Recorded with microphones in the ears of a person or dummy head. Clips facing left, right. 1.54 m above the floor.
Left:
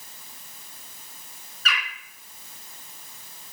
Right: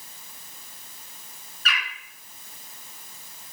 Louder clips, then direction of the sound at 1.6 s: Left 1 dB; 75° left (ahead or behind).